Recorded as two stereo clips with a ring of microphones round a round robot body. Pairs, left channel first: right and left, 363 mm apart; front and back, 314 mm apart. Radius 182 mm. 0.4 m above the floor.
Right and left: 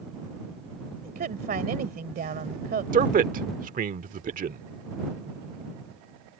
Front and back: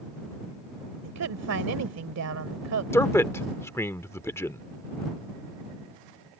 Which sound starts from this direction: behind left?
A woman speaking, at 1.0 s.